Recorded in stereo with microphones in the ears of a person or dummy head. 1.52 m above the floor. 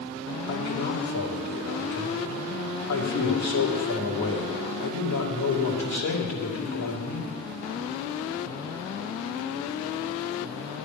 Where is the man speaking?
70° left (ahead or behind), 2.5 m.